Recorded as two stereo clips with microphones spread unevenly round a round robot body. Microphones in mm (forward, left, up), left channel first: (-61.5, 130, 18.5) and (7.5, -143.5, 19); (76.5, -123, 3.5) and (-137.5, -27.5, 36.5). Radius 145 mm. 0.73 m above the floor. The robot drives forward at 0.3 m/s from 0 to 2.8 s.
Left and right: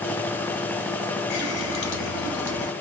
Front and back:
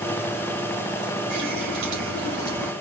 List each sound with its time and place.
1.3 s a running tap: 100° left, 2 m; by 2.7 s 110° left, 2 m